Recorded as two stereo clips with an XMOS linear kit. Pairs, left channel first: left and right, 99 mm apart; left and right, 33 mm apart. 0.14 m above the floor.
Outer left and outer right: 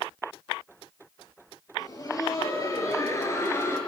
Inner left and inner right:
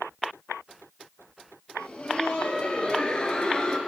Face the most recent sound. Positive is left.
turn(degrees=25)  # may be behind; listen again after turning